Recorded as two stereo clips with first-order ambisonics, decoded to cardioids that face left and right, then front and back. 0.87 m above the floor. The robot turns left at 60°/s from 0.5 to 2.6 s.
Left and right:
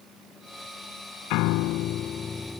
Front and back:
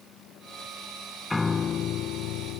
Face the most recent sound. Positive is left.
turn(degrees=5)